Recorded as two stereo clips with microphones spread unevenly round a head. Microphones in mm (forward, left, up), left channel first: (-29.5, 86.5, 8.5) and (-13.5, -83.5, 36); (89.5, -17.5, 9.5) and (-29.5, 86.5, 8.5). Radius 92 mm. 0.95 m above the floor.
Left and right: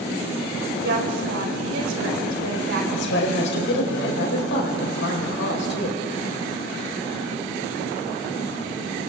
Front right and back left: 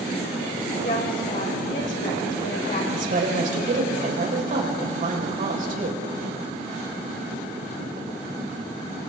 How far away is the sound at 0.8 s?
About 4.5 m.